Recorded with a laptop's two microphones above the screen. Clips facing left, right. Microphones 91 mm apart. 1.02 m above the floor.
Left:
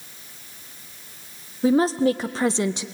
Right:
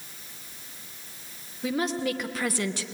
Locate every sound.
1.6 s a woman speaking: 35° left (ahead or behind), 0.8 m; by 2.9 s 20° left (ahead or behind), 0.8 m